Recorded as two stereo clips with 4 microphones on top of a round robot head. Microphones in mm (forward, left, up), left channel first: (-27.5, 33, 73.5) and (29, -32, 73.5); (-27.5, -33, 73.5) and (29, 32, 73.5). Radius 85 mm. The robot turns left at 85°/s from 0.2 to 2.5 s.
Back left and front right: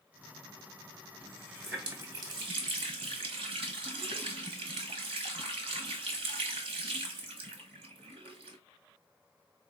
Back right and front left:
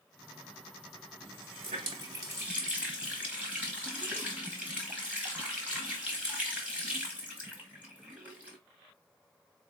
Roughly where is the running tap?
Left.